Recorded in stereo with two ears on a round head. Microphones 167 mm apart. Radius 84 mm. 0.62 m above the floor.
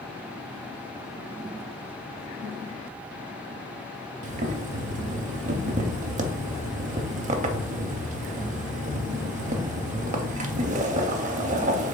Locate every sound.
4.2 s boiling: 40° right (ahead or behind), 0.5 m